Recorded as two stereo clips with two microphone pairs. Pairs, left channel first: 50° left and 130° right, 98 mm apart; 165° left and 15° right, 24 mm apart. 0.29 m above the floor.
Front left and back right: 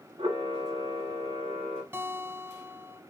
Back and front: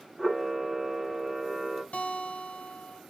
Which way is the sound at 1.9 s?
160° left.